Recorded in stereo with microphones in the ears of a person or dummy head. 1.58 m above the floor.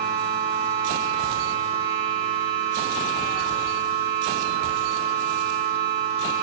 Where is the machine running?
15° right (ahead or behind), 1.7 m.